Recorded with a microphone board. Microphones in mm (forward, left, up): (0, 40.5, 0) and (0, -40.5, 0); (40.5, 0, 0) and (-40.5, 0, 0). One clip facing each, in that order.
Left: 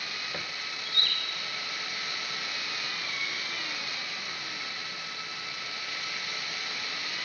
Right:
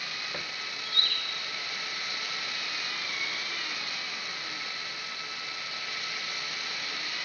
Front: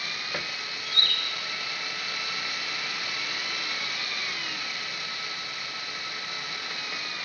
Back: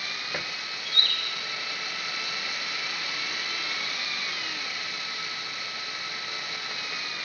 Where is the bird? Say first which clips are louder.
Even, front 1 dB; 130° right, 6 m.